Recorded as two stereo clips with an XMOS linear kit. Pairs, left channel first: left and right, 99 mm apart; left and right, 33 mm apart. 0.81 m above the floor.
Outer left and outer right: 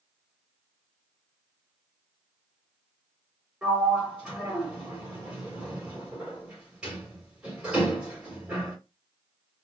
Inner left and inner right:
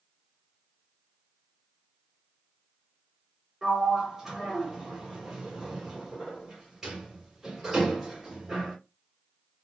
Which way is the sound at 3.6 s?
10° right (ahead or behind).